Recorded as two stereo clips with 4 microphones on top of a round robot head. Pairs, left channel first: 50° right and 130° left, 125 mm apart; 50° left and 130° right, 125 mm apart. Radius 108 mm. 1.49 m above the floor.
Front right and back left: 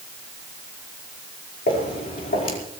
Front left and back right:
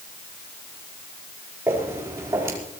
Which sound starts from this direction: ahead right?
Footsteps, at 1.7 s.